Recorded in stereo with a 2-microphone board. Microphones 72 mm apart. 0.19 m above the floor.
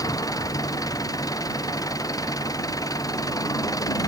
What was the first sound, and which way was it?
An engine running, 55° left (ahead or behind).